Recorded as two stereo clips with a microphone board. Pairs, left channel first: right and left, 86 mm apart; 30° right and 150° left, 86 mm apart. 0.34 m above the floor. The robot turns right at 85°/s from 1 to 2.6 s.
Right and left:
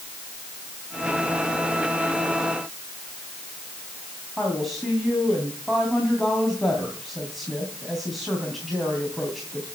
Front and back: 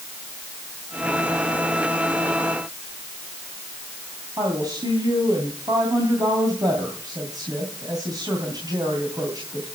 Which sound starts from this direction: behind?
A woman speaking, at 4.4 s.